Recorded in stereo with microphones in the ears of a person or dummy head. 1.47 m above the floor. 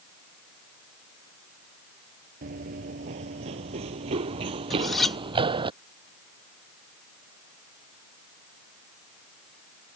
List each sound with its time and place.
2.4 s running footsteps: 35° right (ahead or behind); by 5.7 s 25° right (ahead or behind)
4.7 s cutlery clinking: 5° left (ahead or behind)